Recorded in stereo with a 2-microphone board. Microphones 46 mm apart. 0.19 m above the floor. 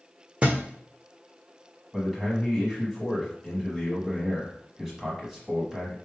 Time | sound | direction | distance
0.4 | a thud | 30° right (ahead or behind) | 0.8 m
1.9 | a man speaking | centre (ahead or behind) | 1.0 m